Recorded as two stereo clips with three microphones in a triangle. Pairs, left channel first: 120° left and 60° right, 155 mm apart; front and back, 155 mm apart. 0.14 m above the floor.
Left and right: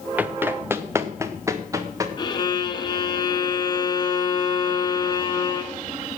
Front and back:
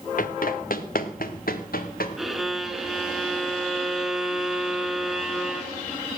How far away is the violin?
About 1.3 m.